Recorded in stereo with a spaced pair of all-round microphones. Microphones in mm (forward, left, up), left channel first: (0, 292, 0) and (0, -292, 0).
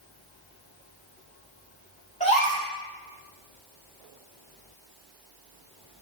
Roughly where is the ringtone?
I don't hear a ringtone.